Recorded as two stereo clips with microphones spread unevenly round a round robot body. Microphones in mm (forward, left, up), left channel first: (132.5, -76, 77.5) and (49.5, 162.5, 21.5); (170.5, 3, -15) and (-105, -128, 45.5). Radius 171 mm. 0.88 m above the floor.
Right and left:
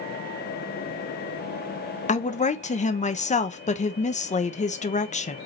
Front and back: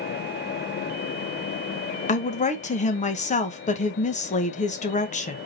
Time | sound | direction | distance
2.1 | a woman speaking | 5° right | 0.8 m